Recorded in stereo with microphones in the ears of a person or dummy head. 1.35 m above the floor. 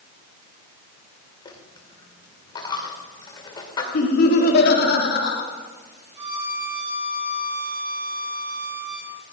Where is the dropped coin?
30° left (ahead or behind), 2 m.